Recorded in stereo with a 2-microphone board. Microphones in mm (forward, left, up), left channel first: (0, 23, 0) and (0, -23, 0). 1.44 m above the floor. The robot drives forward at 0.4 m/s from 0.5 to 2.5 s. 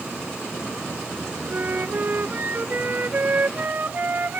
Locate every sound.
1.5 s a flute: 40° right (ahead or behind)